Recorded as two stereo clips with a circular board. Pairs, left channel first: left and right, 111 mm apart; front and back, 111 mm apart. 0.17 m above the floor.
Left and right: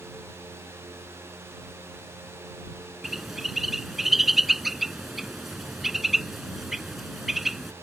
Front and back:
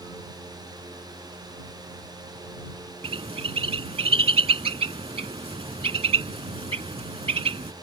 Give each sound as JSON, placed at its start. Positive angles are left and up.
{"t": 3.0, "sound": "a bird", "azimuth_deg": -175}